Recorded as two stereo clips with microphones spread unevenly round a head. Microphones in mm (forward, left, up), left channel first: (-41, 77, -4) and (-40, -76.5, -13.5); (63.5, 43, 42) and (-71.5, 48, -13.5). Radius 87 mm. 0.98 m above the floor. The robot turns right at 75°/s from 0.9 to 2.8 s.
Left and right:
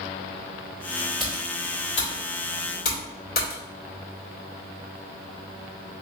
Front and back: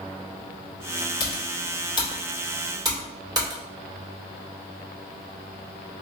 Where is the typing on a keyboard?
5° right, 2 m; by 3.6 s 115° left, 2 m.